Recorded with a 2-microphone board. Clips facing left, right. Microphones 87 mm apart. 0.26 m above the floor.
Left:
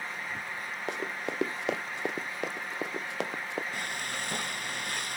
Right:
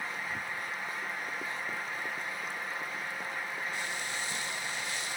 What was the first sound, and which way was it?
Running footsteps, 80° left.